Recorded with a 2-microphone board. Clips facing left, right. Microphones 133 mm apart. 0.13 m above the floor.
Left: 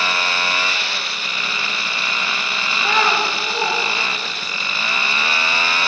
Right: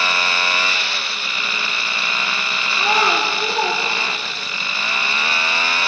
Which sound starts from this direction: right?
A child speaking, at 2.8 s.